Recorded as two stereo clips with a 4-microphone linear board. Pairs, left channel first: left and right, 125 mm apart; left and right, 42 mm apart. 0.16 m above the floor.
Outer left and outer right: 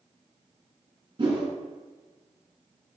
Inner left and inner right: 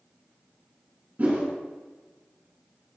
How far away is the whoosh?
About 1.0 m.